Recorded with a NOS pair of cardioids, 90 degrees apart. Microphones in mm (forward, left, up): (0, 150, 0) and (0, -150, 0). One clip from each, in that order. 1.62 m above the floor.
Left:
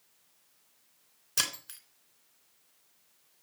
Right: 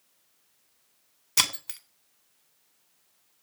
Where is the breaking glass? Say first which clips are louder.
Right 6 dB; 55° right, 3 m.